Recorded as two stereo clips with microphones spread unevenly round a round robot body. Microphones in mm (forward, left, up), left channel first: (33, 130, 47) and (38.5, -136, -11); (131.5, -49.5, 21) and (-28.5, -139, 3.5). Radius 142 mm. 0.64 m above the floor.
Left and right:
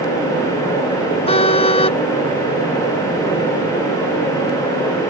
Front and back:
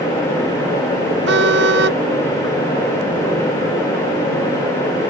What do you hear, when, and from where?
1.3 s a car horn: 160° left